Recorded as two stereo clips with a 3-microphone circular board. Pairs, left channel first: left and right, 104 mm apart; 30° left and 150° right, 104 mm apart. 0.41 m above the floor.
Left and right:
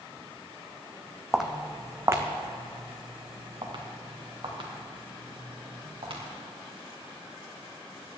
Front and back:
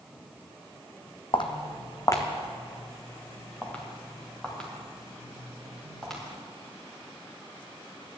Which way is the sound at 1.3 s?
5° right.